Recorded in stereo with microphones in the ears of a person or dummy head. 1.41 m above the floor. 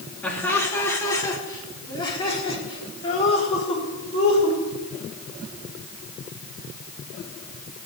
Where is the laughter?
5° left (ahead or behind), 3 m; by 4.6 s 30° left (ahead or behind), 6 m.